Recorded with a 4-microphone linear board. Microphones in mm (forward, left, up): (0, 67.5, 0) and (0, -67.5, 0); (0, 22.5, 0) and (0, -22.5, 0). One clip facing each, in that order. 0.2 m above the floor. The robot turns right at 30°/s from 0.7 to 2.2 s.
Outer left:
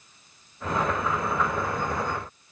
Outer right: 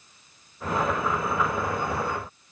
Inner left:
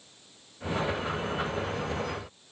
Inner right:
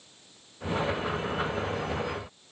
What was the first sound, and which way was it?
Only background noise.